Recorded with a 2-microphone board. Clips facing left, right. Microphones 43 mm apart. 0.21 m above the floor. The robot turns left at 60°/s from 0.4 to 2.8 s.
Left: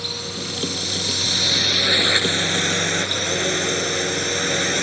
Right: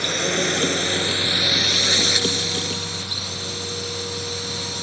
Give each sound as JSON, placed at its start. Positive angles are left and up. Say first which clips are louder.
{"t": 0.0, "sound": "a drone", "louder": "right 8 dB", "azimuth_deg": -105}